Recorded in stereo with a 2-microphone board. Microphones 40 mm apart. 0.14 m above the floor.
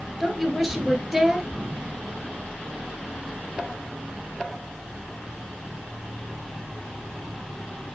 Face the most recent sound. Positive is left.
turn(degrees=-5)  # may be behind; listen again after turning